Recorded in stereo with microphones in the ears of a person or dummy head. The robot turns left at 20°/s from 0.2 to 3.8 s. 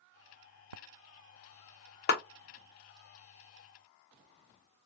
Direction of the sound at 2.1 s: 40° left (ahead or behind).